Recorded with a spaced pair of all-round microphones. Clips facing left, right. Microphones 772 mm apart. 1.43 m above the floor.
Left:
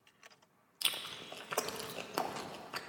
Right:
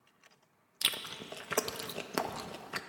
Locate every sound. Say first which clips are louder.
0.8 s chewing: right 4 dB; 60° right (ahead or behind), 0.6 m